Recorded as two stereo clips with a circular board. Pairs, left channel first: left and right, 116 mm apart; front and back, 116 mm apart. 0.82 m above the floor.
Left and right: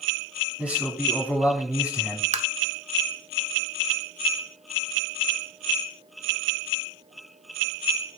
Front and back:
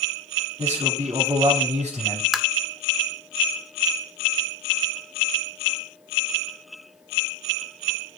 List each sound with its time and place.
0.6 s a man speaking: 170° right, 5.5 m
2.3 s tapping: 90° right, 0.9 m